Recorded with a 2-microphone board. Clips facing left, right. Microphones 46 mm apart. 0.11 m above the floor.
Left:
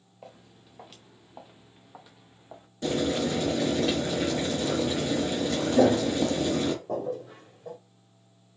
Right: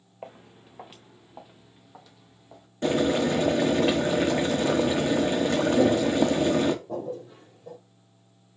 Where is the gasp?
I don't hear a gasp.